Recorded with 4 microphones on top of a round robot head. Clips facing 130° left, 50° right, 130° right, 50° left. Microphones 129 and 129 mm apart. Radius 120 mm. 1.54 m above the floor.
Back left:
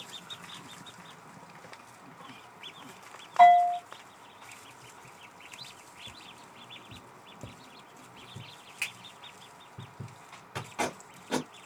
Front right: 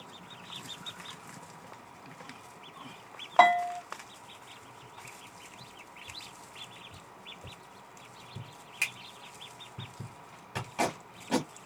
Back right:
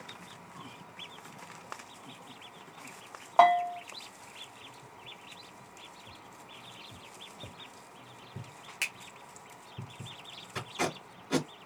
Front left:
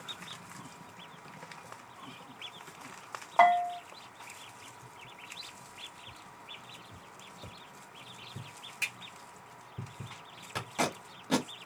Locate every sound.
3.4 s a bell: 60° right, 0.6 m
6.1 s tapping: 155° left, 0.7 m
8.8 s a finger snap: 105° right, 0.9 m
10.6 s tape being pulled: 30° left, 1.2 m